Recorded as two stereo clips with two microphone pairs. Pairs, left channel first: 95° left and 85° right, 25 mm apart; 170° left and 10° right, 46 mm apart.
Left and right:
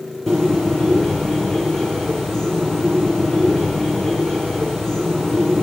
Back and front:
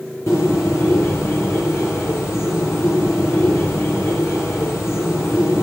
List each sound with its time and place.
0.3 s a bird: 160° left, 9.5 m